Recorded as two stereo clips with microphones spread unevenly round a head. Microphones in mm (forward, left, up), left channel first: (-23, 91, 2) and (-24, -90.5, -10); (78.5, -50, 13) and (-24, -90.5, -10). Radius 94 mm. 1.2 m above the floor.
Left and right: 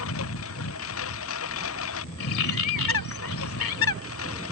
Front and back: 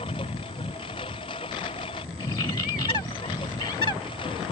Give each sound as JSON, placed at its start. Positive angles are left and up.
{"t": 0.0, "sound": "a lawn mower", "azimuth_deg": 85}
{"t": 2.2, "sound": "a bird", "azimuth_deg": 85}